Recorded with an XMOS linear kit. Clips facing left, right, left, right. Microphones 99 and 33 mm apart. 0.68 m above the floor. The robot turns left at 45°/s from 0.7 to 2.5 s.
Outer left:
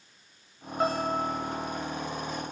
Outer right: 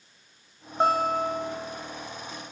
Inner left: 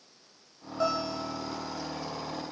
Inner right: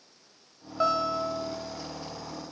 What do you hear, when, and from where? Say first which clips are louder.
0.8 s a guitar: outer right 4 dB, inner right 4 dB; 30° right, 0.7 m; by 1.8 s 75° right, 0.7 m